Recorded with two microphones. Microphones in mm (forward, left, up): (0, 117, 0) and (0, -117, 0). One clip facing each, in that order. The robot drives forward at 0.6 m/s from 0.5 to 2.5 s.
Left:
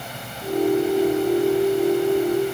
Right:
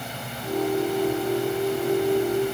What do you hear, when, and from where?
Only background noise.